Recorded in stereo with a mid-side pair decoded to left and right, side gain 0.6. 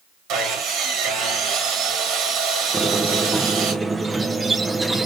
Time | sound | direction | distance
0.3 | sawing | 65° right | 1.6 m
2.7 | a squeak | 20° right | 0.8 m